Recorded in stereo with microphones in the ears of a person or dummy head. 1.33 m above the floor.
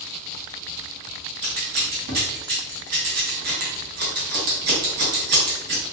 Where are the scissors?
40° right (ahead or behind), 1.0 m.